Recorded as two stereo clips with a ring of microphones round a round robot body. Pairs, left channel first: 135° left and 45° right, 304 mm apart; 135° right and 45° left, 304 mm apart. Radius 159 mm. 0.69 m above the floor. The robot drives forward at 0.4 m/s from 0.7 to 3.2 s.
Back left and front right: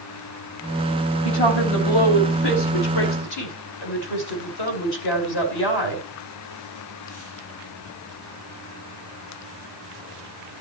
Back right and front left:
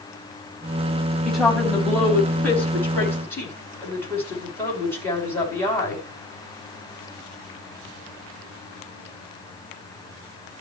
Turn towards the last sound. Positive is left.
turn(degrees=140)